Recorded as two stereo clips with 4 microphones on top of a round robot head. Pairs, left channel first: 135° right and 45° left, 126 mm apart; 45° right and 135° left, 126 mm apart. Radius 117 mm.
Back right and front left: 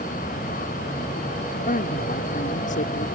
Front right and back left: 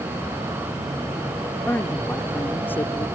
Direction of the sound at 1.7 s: 120° right.